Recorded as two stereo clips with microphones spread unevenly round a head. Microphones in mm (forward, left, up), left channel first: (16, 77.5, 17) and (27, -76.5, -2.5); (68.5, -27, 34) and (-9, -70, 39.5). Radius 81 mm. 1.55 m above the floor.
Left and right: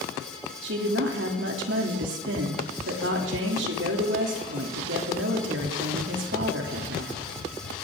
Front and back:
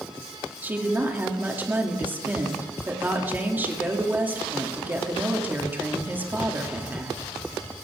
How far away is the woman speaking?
About 3 m.